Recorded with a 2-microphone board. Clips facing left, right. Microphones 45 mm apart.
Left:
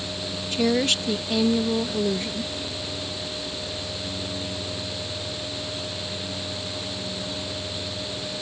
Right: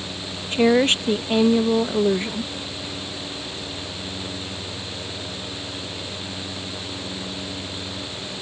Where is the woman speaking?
35° right (ahead or behind).